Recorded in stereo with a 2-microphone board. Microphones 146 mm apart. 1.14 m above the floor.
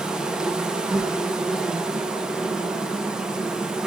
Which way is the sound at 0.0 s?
5° right (ahead or behind).